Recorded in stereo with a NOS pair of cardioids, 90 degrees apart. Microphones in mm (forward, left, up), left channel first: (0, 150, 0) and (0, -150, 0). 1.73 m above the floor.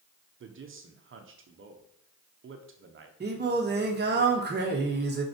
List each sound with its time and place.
0.4 s a man speaking: 45° right, 1.4 m
3.2 s singing: 35° right, 2.0 m